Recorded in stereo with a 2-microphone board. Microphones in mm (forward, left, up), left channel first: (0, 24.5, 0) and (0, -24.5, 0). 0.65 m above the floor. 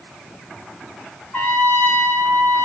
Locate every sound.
1.3 s a trumpet: 35° left (ahead or behind), 4 m